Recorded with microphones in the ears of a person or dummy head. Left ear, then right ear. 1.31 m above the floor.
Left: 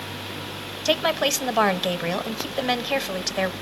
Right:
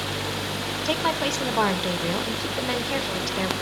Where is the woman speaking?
30° left (ahead or behind), 0.9 m.